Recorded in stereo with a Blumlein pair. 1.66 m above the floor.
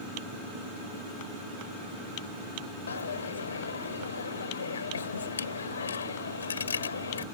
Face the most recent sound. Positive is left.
turn(degrees=70)